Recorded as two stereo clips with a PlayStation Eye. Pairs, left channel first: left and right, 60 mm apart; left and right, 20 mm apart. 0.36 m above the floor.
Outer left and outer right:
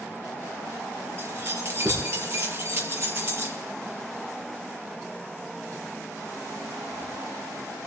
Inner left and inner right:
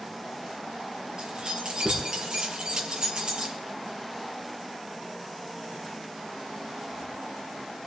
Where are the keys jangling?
40° right (ahead or behind), 5 m.